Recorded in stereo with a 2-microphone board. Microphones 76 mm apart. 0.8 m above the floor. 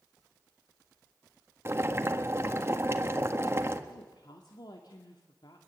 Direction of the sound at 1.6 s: 35° right (ahead or behind).